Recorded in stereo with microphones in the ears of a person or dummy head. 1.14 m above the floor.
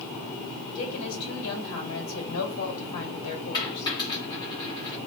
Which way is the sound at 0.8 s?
75° left (ahead or behind).